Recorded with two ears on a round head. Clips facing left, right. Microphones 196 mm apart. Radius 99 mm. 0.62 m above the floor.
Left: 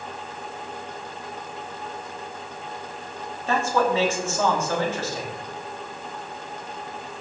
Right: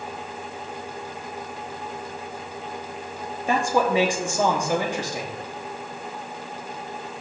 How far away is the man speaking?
About 1.3 m.